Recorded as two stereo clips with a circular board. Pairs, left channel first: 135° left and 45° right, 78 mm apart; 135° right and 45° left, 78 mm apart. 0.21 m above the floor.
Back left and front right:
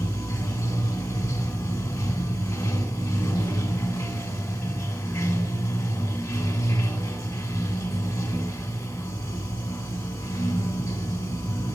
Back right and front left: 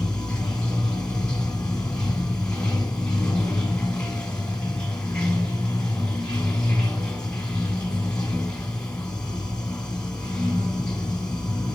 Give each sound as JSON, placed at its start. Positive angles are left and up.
{"t": 0.0, "sound": "running water", "azimuth_deg": 150, "distance_m": 1.5}